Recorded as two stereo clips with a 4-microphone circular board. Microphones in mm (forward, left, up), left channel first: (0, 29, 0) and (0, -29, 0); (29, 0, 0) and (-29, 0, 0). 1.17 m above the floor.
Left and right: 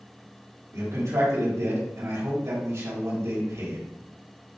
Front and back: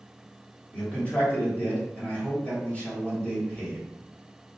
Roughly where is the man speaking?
Ahead right.